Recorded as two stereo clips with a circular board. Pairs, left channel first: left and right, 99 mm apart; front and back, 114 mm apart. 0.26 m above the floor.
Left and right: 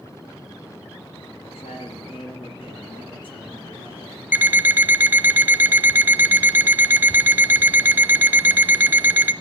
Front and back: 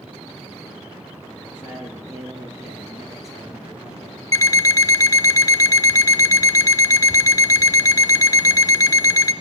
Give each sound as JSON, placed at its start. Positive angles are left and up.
{"t": 1.4, "sound": "a man speaking", "azimuth_deg": 105, "distance_m": 4.5}
{"t": 4.3, "sound": "an alarm clock", "azimuth_deg": -35, "distance_m": 0.5}